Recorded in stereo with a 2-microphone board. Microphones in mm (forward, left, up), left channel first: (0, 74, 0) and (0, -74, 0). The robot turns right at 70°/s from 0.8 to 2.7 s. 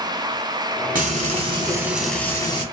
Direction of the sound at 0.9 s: 80° right.